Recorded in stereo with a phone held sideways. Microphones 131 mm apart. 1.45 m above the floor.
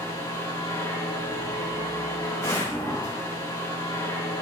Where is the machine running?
25° left (ahead or behind), 1.7 m.